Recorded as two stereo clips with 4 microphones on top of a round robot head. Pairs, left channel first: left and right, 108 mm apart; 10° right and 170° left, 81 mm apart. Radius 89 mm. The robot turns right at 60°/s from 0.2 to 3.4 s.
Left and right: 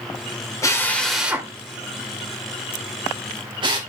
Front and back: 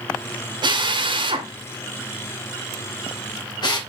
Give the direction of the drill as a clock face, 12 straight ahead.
7 o'clock.